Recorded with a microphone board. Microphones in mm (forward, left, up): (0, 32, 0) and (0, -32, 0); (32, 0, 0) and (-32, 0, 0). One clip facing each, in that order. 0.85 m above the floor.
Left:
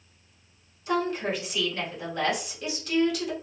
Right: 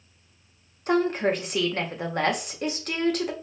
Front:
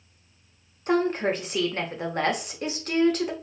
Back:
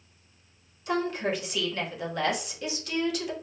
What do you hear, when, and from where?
0.9 s a woman speaking: 50° right, 0.9 m